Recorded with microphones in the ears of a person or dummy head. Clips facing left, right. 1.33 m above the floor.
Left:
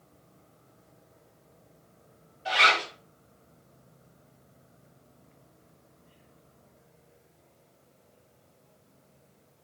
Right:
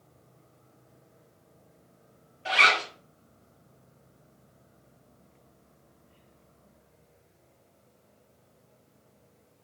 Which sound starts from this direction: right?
A zipper, at 2.5 s.